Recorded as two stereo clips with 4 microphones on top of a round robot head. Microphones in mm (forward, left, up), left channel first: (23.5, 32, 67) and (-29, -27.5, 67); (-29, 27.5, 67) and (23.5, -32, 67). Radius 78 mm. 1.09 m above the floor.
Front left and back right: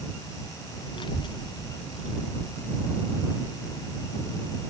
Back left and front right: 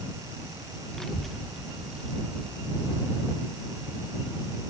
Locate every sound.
0.9 s a child speaking: 50° left; by 4.6 s 25° left